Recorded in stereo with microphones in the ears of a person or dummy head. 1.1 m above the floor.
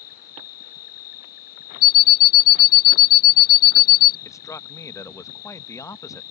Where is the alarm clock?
55° left (ahead or behind).